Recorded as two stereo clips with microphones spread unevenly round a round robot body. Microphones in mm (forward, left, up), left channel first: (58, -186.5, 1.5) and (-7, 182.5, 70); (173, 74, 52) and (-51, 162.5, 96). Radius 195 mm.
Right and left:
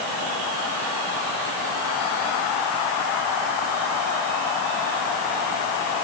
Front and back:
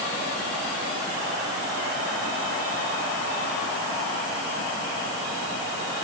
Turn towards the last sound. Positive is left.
No sound to turn to.